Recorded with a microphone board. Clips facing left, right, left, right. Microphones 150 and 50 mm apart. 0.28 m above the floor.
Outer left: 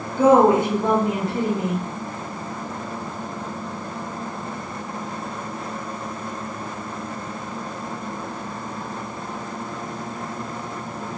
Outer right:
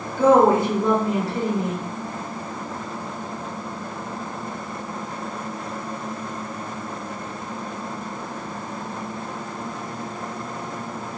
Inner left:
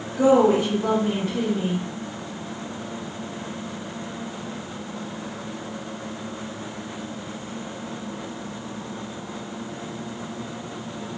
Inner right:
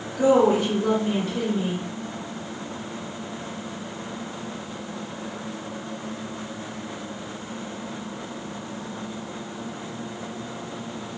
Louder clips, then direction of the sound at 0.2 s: Outer left 1 dB, inner left 1 dB; 20° left (ahead or behind).